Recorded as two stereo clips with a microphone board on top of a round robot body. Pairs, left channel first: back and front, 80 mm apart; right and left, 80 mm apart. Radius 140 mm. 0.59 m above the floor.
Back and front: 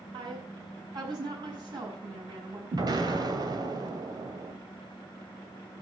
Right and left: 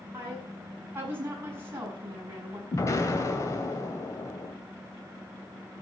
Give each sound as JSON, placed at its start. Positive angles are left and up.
{"t": 0.1, "sound": "a woman speaking", "azimuth_deg": 30, "distance_m": 6.5}
{"t": 2.7, "sound": "an explosion", "azimuth_deg": -40, "distance_m": 2.5}